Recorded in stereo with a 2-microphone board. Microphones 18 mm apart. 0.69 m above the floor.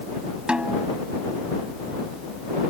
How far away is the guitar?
I don't hear a guitar.